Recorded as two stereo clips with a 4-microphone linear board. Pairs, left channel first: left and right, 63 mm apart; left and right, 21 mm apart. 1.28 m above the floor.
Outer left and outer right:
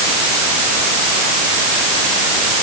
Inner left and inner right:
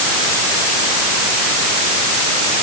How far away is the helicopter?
No helicopter in this recording.